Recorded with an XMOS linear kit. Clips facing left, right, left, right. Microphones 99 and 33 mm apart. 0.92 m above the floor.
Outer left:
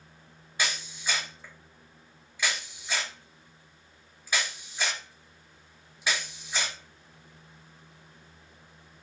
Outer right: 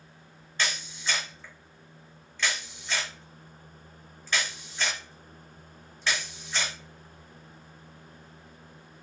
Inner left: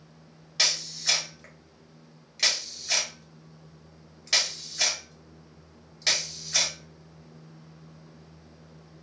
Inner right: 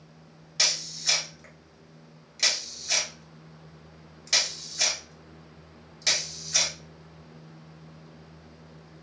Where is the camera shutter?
10° left (ahead or behind), 1.0 m.